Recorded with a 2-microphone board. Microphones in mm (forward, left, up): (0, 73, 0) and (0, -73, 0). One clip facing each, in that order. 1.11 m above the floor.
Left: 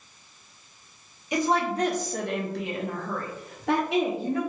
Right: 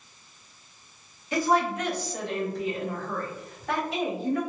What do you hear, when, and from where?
1.3 s a woman speaking: 15° left (ahead or behind), 0.9 m; by 4.4 s 70° left (ahead or behind), 1.8 m